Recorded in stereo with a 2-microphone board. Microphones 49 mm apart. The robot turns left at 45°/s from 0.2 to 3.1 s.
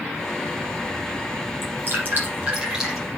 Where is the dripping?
65° right (ahead or behind), 5.5 m; by 3.0 s centre (ahead or behind), 5.5 m.